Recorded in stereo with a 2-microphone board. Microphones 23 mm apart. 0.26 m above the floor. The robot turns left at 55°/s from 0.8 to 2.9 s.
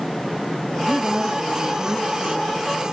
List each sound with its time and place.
0.8 s a woman speaking: 15° left, 3.5 m; by 2.6 s 80° right, 3.5 m